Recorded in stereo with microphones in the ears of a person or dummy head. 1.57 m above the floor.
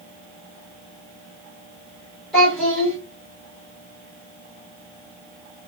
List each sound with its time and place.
2.3 s a child speaking: 5° left (ahead or behind), 1.2 m